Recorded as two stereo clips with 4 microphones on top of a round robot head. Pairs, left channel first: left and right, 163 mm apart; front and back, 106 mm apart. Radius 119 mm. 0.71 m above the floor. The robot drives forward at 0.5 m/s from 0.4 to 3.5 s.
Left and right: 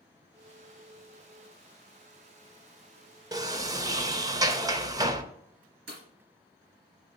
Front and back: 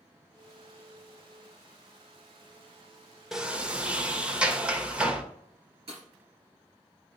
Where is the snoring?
No snoring in this recording.